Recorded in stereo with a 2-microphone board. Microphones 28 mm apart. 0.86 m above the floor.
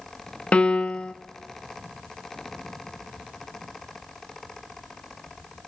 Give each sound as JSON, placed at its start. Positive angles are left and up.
{"t": 0.5, "sound": "a piano", "side_deg": 45, "distance_m": 0.9}